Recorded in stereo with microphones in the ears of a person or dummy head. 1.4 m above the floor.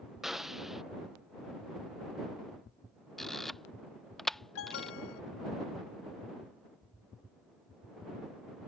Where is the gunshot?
5° right (ahead or behind).